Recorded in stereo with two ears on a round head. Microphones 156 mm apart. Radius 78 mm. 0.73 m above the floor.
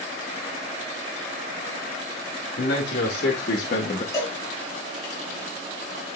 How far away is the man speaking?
About 2.5 m.